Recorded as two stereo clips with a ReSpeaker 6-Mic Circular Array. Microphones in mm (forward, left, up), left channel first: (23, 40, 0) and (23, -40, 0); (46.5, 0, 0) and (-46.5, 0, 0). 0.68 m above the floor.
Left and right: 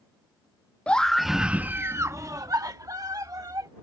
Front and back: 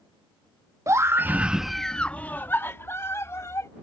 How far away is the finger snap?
No finger snap in this recording.